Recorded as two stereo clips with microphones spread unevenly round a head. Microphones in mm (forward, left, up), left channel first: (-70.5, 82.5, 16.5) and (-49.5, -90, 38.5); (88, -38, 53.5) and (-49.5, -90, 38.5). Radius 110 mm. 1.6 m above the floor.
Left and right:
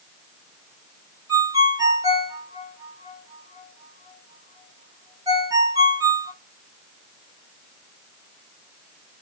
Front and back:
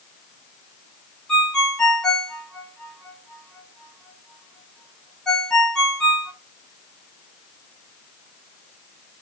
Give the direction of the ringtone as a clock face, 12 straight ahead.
2 o'clock.